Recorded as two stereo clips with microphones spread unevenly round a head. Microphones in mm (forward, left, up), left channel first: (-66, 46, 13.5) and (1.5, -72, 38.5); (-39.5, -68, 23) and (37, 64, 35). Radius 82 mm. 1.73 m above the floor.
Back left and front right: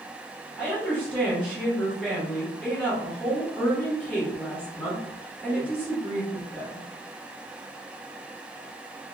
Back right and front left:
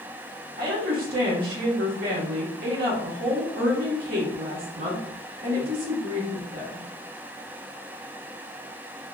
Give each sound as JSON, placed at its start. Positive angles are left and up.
{"t": 0.6, "sound": "a woman speaking", "azimuth_deg": 35, "distance_m": 1.3}